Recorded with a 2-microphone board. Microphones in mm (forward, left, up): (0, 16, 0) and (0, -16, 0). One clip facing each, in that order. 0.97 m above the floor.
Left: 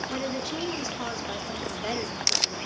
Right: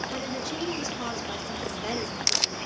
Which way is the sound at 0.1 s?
10° left (ahead or behind).